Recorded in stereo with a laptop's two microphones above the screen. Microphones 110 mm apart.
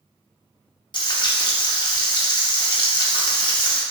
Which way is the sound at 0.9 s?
45° left (ahead or behind).